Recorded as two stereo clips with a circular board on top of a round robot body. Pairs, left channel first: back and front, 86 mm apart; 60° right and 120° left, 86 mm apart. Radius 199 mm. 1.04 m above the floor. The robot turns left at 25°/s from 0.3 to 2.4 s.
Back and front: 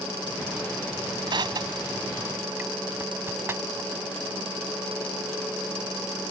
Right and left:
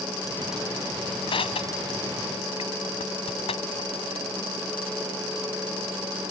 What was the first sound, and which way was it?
Crushing, 35° right.